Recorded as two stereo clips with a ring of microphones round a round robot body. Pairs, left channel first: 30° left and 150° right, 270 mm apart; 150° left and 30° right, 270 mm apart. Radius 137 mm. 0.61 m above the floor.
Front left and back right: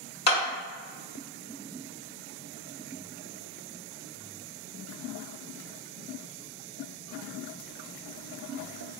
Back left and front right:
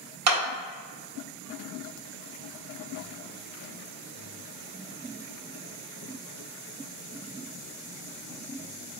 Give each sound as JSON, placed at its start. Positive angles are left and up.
{"t": 0.3, "sound": "a clap", "azimuth_deg": -20, "distance_m": 1.4}